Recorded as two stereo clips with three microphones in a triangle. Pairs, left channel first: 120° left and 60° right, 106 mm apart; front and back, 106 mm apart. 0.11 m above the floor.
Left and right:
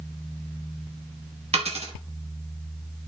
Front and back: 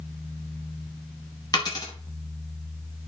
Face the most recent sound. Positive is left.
turn(degrees=-50)